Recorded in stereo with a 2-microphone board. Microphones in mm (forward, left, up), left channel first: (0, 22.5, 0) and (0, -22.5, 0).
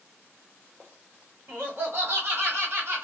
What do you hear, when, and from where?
1.5 s laughter: 55° right (ahead or behind), 1.8 m; by 3.0 s 50° right (ahead or behind), 1.3 m